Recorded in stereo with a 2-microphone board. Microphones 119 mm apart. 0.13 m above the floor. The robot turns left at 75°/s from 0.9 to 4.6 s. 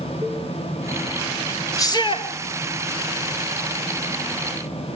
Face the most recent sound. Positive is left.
turn(degrees=-65)